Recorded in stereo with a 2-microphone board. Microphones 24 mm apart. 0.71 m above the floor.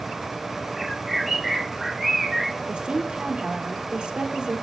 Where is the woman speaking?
40° right (ahead or behind), 1.7 m.